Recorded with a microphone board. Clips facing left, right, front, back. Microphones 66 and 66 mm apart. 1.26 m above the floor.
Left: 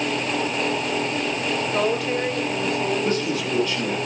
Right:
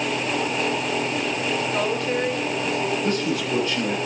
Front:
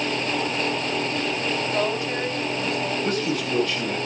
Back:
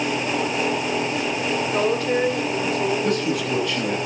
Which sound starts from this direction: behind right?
A man speaking, at 3.0 s.